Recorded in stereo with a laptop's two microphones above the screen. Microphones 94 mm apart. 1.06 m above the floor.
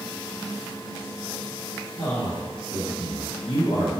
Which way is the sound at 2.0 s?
75° left (ahead or behind).